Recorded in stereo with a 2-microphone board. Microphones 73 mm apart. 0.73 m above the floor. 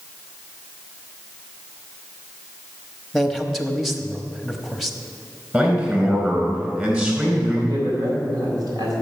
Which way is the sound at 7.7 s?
70° right (ahead or behind).